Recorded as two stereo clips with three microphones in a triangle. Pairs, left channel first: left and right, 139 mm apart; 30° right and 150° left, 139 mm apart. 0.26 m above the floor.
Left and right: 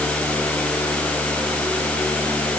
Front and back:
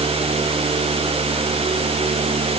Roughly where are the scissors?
I don't hear scissors.